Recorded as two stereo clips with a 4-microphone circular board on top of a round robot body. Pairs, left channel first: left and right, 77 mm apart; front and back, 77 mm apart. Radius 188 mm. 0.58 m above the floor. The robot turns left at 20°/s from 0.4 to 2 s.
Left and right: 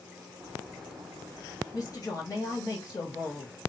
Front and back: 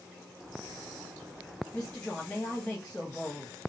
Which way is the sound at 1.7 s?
75° left.